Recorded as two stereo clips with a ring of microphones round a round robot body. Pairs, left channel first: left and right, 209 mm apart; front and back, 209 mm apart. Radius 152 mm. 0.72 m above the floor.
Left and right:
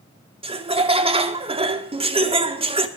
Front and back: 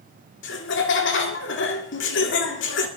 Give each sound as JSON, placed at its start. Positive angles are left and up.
{"t": 0.4, "sound": "laughter", "azimuth_deg": -30, "distance_m": 2.0}